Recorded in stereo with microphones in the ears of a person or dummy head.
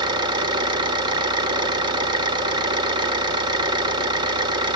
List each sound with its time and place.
0.0 s an engine running: 25° right (ahead or behind), 2.0 m